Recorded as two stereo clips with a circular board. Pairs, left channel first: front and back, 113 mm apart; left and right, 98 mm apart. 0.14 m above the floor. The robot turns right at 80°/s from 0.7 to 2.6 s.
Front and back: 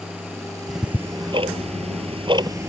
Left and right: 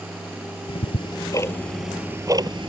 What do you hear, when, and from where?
0.7 s ticking: 90° left; by 2.7 s 120° right